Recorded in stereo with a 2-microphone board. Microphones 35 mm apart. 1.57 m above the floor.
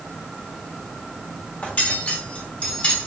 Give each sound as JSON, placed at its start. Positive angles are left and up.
{"t": 1.6, "sound": "cutlery clinking", "side_deg": 40, "distance_m": 1.5}